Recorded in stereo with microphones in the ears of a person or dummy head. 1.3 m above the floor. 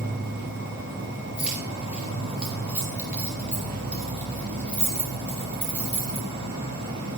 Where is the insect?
50° right (ahead or behind), 2.5 m.